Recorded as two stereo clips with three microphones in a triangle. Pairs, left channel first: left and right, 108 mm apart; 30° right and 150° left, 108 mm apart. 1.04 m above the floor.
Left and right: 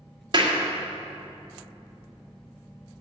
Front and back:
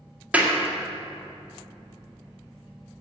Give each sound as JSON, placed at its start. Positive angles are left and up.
{"t": 0.3, "sound": "a clap", "azimuth_deg": -130, "distance_m": 2.0}